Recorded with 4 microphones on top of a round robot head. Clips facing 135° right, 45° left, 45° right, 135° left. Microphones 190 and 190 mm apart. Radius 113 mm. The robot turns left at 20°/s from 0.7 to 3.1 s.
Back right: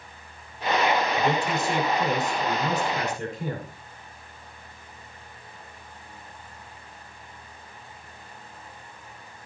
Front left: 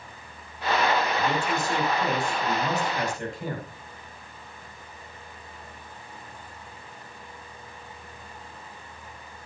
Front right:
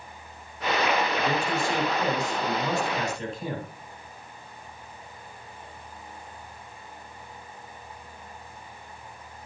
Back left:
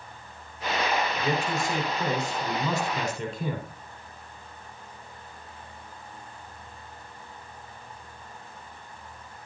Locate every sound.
1.2 s a man speaking: 165° right, 6 m; by 3.7 s 155° left, 6 m